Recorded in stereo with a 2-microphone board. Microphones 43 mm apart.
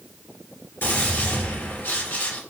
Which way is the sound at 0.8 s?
65° left (ahead or behind).